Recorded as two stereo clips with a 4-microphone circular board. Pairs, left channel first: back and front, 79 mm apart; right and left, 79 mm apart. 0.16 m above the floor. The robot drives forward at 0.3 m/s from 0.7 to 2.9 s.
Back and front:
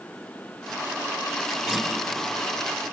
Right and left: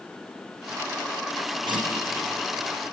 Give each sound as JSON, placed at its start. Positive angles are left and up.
{"t": 1.7, "sound": "a guitar", "azimuth_deg": 90, "distance_m": 6.0}